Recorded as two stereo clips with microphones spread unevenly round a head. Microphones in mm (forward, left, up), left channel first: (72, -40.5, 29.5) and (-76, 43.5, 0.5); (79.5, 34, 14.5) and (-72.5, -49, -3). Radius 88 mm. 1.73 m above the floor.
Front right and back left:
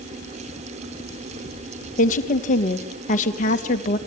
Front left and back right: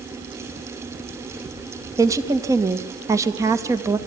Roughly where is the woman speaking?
Right.